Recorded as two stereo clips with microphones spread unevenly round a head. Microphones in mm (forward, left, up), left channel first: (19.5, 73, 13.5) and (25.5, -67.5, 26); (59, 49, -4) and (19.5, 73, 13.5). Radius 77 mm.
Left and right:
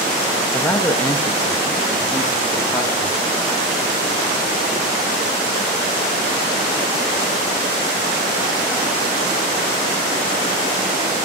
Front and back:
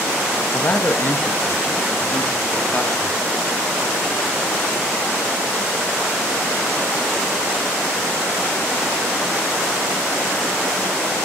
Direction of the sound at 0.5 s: 15° left.